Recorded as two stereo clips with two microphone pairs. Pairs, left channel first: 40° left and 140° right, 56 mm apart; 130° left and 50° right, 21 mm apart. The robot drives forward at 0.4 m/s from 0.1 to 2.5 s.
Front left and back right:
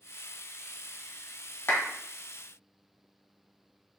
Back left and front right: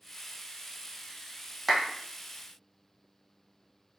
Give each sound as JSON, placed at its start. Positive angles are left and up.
{"t": 1.7, "sound": "a clap", "azimuth_deg": 30, "distance_m": 1.0}